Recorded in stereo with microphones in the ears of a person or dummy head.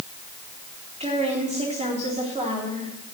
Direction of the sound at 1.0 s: 35° right (ahead or behind).